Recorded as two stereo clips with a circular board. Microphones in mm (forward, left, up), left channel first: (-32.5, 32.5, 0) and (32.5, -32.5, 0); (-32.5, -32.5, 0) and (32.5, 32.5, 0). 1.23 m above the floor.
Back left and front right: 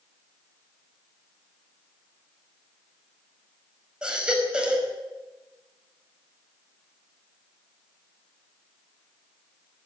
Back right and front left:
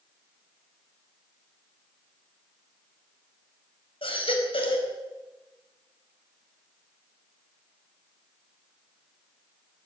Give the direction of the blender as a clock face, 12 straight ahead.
I don't hear a blender.